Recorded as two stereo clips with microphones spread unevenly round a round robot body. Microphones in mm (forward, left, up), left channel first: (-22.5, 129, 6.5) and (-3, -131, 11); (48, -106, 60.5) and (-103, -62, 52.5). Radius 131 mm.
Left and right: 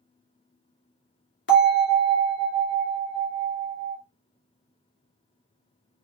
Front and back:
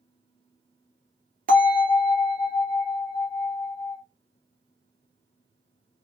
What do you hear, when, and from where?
1.5 s a bell: 135° left, 2.0 m